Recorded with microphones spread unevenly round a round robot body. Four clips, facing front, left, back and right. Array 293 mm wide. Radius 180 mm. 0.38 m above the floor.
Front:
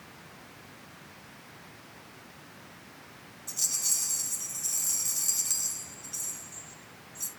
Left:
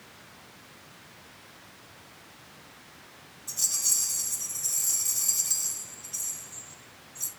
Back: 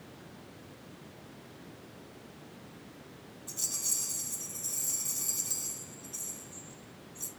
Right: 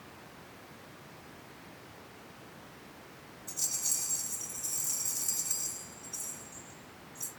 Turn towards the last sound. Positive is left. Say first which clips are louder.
# left 4 dB, front 2 dB
turn(degrees=140)